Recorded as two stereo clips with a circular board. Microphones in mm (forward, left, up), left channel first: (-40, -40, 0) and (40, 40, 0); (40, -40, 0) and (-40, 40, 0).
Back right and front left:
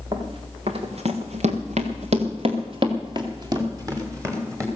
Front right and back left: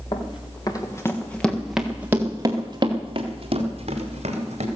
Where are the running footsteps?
Straight ahead, 3 m; by 4.7 s 110° left, 4.5 m.